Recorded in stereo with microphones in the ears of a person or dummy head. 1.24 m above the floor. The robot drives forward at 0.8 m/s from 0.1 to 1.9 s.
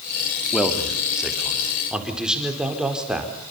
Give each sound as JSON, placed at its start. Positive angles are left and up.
{"t": 0.5, "sound": "a man speaking", "side_deg": 0, "distance_m": 3.5}